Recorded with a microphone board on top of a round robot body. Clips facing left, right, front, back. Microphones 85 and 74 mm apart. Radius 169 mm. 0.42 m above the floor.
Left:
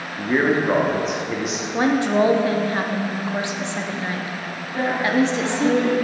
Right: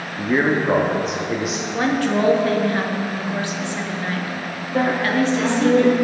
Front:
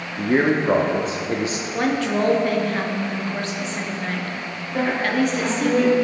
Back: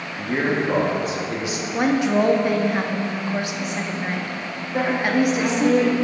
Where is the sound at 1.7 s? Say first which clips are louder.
Left 2 dB, back 3 dB; 125° left, 1.2 m.